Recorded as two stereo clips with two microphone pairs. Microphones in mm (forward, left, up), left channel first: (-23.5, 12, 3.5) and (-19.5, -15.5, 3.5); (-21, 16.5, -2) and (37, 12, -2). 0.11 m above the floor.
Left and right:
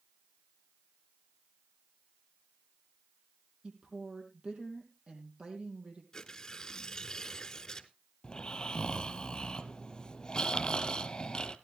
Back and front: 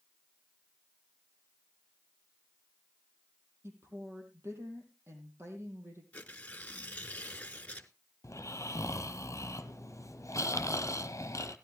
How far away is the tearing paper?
About 0.9 m.